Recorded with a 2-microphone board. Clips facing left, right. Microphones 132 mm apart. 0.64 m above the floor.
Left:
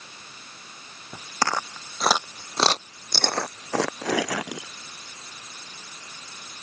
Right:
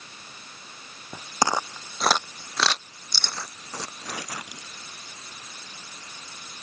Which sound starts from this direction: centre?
Footsteps, at 1.4 s.